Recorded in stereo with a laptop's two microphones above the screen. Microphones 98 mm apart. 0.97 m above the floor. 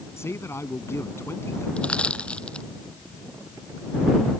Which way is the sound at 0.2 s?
25° left (ahead or behind).